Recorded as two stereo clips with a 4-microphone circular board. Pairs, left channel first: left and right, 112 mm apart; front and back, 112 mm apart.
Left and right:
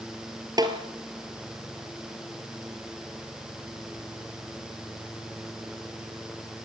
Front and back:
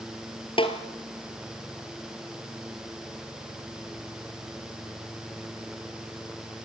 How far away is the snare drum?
About 3 m.